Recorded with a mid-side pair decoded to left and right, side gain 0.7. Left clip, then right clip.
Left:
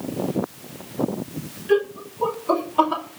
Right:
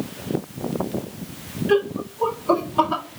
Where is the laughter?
15° right, 2.5 m; by 3.0 s straight ahead, 4 m.